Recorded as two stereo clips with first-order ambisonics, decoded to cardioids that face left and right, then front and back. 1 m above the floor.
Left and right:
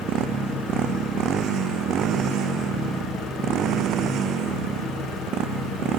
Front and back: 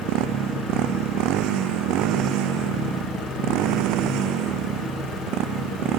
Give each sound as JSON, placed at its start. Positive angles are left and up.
{"t": 0.0, "sound": "a motorcycle", "azimuth_deg": -145}